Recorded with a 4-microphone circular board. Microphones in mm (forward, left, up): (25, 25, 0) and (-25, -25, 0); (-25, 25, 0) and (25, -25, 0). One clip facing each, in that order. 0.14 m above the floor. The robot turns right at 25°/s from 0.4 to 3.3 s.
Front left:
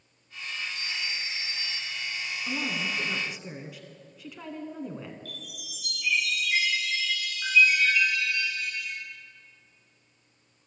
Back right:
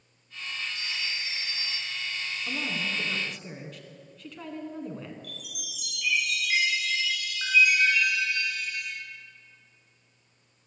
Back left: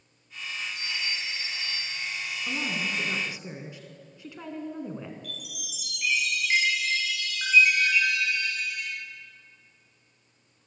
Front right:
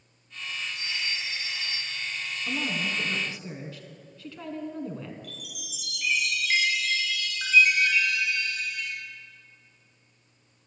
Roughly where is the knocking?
No knocking in this recording.